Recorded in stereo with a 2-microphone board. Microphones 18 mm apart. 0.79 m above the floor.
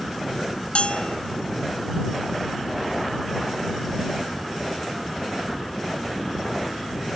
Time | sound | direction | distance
0.8 | a bell | 90° left | ?